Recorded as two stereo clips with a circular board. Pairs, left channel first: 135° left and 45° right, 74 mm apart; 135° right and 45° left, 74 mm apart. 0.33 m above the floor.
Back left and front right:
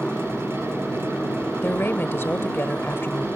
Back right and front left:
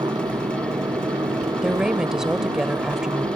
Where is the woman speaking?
120° left.